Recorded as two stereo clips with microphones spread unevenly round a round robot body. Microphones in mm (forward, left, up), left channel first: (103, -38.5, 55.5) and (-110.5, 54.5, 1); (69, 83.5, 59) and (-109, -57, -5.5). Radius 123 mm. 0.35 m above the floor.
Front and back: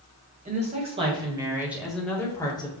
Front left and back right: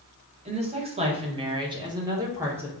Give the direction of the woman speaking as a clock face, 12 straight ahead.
6 o'clock.